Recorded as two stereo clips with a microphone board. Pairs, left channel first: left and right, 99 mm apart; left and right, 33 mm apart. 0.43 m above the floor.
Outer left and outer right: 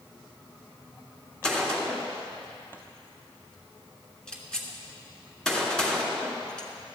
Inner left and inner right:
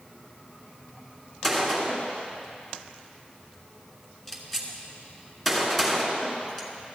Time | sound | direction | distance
1.4 | a gunshot | 10° left (ahead or behind) | 1.9 m